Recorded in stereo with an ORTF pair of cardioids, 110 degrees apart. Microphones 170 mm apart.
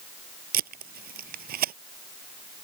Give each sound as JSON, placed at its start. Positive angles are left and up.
{"t": 0.5, "sound": "tape being pulled", "azimuth_deg": -60}